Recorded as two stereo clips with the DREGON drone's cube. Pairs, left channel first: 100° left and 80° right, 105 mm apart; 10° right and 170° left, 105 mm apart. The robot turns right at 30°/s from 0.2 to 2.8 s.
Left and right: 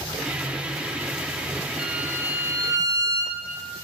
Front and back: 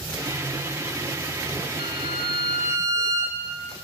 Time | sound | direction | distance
1.8 | a violin | 160° right | 3.5 m